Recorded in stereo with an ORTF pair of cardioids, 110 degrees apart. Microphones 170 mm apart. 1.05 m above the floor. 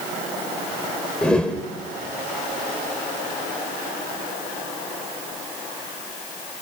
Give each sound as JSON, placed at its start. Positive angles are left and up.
{"t": 1.2, "sound": "a whoosh", "azimuth_deg": 5, "distance_m": 2.5}